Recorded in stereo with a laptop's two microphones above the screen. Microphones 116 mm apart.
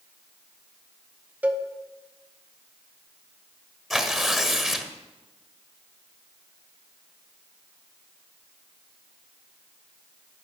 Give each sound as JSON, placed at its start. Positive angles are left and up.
{"t": 1.4, "sound": "a cowbell", "side_deg": -15, "distance_m": 0.8}
{"t": 3.9, "sound": "tearing paper", "side_deg": 0, "distance_m": 1.5}